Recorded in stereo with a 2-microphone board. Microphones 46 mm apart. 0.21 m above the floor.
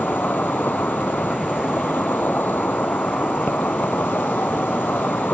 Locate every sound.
0.0 s an insect: 45° left (ahead or behind)